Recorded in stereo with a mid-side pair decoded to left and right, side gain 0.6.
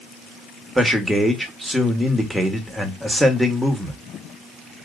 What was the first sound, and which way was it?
A man speaking, 10° right.